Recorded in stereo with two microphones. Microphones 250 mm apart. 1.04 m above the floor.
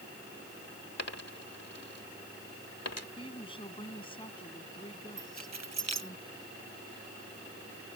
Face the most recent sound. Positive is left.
turn(degrees=-80)